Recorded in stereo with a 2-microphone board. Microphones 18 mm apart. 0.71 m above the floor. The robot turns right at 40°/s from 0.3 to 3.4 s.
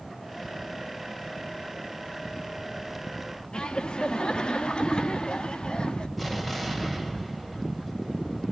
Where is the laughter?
50° left (ahead or behind), 1.1 m.